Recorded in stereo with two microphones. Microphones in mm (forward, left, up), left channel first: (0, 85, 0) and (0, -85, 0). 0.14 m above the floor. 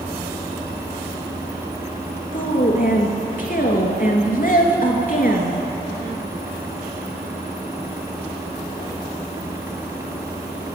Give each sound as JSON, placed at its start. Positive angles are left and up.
{"t": 2.3, "sound": "a woman speaking", "side_deg": 55, "distance_m": 2.5}